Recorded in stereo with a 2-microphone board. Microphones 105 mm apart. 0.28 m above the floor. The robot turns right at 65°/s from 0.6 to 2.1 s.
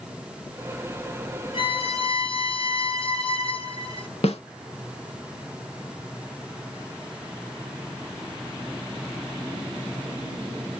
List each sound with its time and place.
1.5 s a violin: 65° left, 1.3 m; by 4.1 s 100° left, 1.3 m
4.2 s a snare drum: 80° left, 0.7 m